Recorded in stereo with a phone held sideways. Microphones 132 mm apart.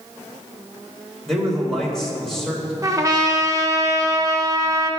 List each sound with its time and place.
1.2 s a man speaking: 5° left (ahead or behind), 3 m
2.8 s a trumpet: 25° right (ahead or behind), 0.8 m